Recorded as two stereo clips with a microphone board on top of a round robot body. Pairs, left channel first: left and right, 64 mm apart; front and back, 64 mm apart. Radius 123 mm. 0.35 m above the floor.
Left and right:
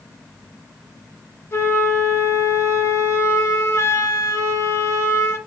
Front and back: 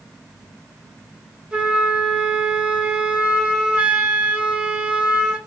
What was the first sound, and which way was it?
A flute, 110° left.